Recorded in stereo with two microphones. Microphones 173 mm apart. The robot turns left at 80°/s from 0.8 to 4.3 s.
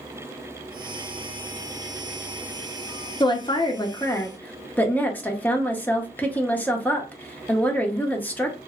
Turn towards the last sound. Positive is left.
turn(degrees=10)  # may be behind; listen again after turning